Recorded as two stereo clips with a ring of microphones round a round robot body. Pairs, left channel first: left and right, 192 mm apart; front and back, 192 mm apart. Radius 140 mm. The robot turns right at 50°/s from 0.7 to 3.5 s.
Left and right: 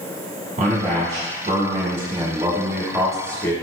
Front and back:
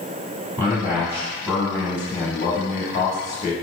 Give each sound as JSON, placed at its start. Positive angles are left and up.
{"t": 0.6, "sound": "a man speaking", "azimuth_deg": -115, "distance_m": 1.0}